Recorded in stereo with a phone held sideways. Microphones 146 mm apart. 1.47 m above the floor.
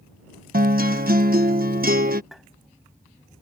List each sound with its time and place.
0.5 s a guitar: 85° right
2.3 s tapping: centre (ahead or behind)